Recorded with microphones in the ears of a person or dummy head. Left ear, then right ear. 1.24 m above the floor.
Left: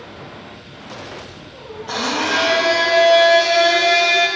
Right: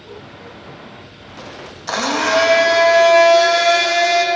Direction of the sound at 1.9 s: 60° right (ahead or behind).